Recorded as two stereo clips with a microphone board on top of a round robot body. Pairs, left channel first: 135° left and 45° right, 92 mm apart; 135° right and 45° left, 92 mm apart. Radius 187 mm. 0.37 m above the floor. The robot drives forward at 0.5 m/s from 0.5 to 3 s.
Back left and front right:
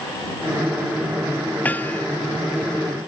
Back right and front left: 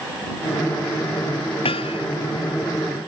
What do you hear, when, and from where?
1.6 s hammering: 155° right